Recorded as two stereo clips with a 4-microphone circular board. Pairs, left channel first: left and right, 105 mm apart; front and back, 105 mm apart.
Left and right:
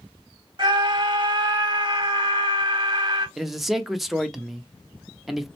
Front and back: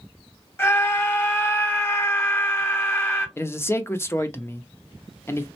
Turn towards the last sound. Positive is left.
turn(degrees=-5)